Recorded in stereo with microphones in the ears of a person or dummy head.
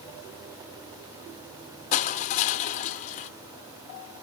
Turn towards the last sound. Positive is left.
turn(degrees=40)  # may be behind; listen again after turning